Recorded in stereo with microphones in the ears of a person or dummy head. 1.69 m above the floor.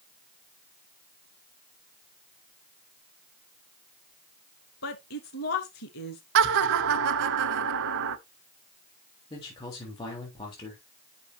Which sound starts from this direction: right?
Laughter, at 6.3 s.